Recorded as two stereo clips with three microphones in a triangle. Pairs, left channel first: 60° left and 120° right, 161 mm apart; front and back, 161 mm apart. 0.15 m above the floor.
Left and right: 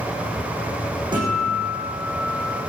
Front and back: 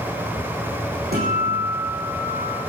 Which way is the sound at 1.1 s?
Straight behind.